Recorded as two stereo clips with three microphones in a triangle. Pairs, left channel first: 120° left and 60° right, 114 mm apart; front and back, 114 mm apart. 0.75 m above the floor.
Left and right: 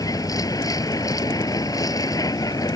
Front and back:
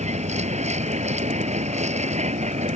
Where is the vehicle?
Straight behind.